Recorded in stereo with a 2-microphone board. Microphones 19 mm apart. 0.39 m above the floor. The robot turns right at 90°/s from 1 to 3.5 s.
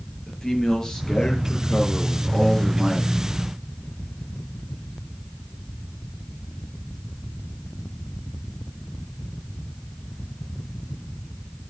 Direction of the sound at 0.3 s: 25° left.